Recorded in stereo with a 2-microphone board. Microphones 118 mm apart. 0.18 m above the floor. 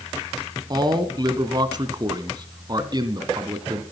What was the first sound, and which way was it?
A man speaking, 35° right (ahead or behind).